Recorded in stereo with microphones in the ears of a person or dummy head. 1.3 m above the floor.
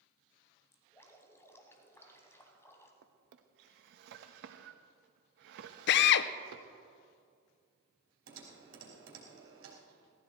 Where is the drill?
60° left (ahead or behind), 0.6 m.